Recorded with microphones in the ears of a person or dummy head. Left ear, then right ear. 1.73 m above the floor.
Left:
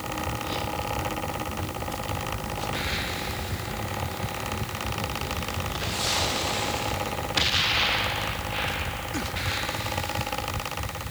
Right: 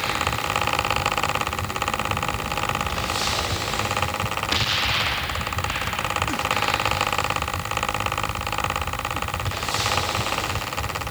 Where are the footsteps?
No footsteps in this recording.